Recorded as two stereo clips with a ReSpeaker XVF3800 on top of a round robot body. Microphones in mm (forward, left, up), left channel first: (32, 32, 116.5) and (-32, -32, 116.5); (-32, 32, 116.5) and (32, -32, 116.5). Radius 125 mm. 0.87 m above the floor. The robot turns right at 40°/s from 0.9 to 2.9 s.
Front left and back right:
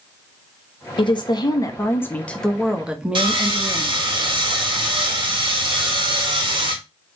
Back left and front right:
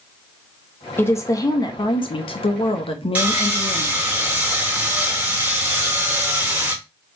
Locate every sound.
1.0 s a woman speaking: 70° left, 1.0 m; by 4.1 s 145° left, 1.0 m
3.1 s sawing: 115° right, 2 m